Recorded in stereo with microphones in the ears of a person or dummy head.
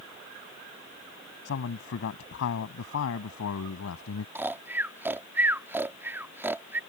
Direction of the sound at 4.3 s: 15° right (ahead or behind).